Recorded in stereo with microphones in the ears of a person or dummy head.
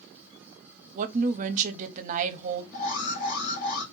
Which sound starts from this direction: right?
A woman speaking, at 0.9 s.